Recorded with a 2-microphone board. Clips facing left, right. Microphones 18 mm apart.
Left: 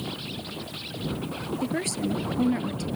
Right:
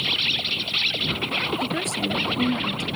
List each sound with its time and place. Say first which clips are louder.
0.0 s an insect: right 12 dB; 65° right (ahead or behind)
1.6 s a woman speaking: right 3 dB; 5° left (ahead or behind)